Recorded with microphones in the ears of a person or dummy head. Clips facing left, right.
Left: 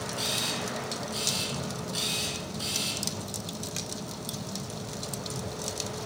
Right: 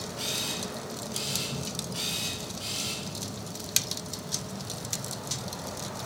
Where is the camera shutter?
55° left (ahead or behind), 3 m.